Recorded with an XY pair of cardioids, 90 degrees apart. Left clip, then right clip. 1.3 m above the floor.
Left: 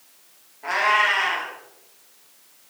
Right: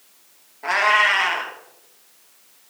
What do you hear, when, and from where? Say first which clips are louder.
0.6 s a cat meowing: right 2 dB; 40° right, 1.6 m